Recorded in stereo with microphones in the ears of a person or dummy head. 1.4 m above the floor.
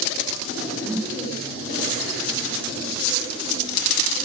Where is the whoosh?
5° right (ahead or behind), 0.8 m.